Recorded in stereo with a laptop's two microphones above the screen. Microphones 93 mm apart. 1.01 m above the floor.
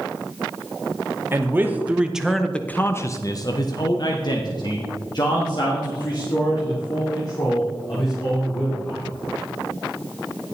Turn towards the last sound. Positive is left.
turn(degrees=45)  # may be behind; listen again after turning